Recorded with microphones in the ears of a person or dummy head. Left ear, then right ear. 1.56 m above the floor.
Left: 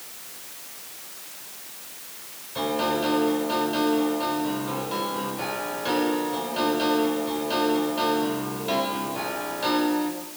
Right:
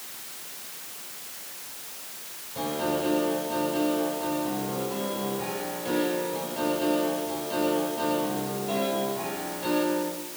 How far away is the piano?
About 8 m.